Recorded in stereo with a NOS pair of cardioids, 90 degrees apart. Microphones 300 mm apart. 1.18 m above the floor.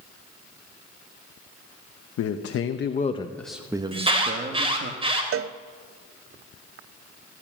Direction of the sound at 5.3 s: 50° right.